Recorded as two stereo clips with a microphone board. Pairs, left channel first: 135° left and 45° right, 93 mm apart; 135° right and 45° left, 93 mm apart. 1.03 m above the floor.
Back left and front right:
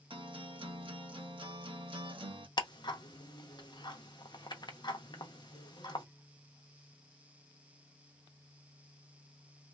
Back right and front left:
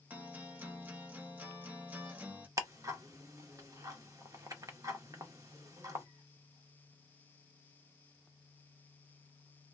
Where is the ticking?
95° left, 0.6 m.